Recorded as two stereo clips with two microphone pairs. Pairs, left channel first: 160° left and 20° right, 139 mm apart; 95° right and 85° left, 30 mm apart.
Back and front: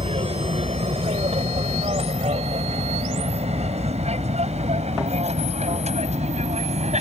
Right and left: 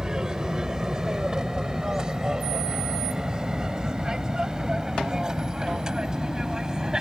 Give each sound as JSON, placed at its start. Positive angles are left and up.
{"t": 0.0, "sound": "an aircraft", "azimuth_deg": 20}